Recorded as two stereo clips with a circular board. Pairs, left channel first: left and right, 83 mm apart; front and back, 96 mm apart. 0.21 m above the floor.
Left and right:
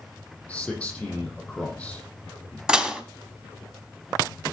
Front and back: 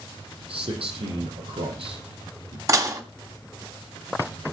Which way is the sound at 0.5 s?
170° left.